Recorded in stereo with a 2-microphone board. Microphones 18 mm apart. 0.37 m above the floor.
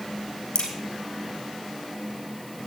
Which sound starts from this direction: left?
A crack, at 0.6 s.